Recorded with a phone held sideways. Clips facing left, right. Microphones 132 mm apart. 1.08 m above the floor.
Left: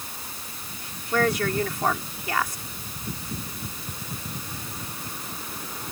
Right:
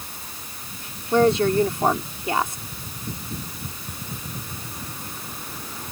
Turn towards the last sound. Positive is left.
turn(degrees=-25)  # may be behind; listen again after turning